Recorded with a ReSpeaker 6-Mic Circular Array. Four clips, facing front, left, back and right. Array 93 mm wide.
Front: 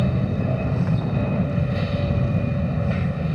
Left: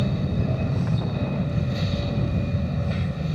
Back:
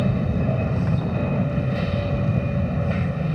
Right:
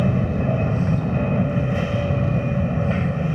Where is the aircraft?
95° right.